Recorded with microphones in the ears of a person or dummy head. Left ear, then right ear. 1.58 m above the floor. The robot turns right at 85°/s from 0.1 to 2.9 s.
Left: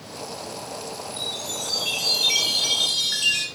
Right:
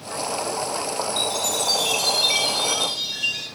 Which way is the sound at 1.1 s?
85° right.